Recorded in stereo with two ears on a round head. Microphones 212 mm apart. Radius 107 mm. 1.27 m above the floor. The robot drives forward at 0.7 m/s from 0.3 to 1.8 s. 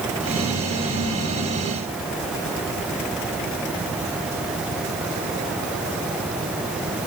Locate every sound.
Only background noise.